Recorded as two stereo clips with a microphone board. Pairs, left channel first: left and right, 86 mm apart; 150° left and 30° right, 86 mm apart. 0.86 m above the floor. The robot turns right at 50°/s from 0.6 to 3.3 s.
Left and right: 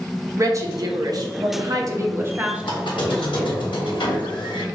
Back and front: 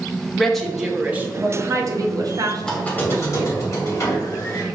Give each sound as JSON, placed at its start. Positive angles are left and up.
{"t": 0.4, "sound": "a woman speaking", "azimuth_deg": -120, "distance_m": 0.7}
{"t": 2.6, "sound": "a squeak", "azimuth_deg": 70, "distance_m": 1.2}